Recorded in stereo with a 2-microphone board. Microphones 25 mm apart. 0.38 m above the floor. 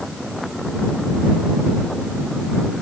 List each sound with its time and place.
Only background noise.